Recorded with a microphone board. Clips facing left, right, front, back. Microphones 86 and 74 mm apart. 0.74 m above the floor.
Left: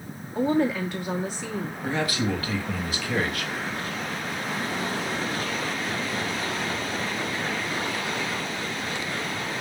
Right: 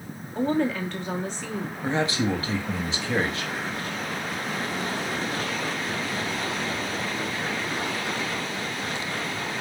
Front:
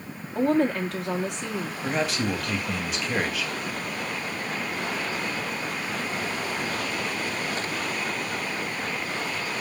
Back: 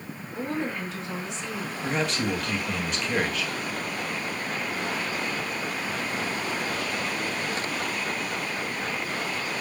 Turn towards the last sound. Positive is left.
turn(degrees=-85)